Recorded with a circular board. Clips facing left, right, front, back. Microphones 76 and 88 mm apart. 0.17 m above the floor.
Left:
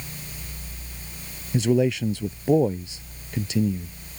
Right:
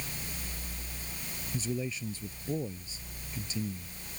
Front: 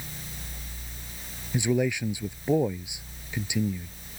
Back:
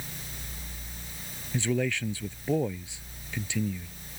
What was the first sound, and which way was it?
A man speaking, 75° left.